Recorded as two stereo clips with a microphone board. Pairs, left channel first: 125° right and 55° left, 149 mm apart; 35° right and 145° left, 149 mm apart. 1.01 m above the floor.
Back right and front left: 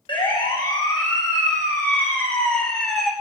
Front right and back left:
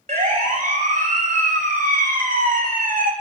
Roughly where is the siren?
Behind.